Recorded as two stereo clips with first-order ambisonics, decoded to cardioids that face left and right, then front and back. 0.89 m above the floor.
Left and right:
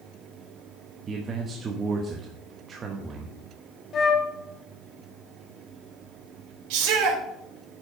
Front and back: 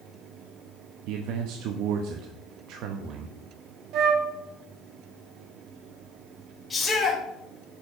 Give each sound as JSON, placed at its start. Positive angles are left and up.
{"t": 1.1, "sound": "a man speaking", "azimuth_deg": -155, "distance_m": 1.0}
{"t": 3.9, "sound": "a flute", "azimuth_deg": 145, "distance_m": 1.2}
{"t": 6.7, "sound": "a shout", "azimuth_deg": -80, "distance_m": 3.0}